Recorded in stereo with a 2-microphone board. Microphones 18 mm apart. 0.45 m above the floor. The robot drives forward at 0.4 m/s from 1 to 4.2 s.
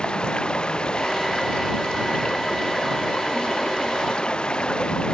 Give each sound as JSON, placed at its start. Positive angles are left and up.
{"t": 0.0, "sound": "running water", "side_deg": 70}